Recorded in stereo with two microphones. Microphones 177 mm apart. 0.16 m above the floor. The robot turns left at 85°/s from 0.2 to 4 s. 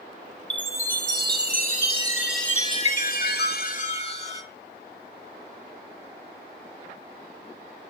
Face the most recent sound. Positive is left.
turn(degrees=40)